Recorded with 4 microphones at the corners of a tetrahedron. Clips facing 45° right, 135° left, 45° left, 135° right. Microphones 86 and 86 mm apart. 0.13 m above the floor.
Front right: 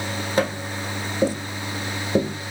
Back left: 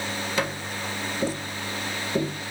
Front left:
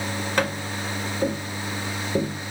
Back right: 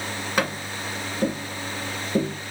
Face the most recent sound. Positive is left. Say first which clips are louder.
# front right 7 dB, even
turn(degrees=-55)